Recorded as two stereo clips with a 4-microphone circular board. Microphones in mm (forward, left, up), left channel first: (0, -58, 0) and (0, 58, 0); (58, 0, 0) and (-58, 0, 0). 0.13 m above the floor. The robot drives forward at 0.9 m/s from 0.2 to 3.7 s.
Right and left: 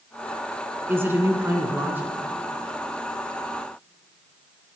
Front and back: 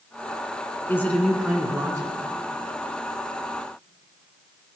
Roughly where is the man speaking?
Ahead left.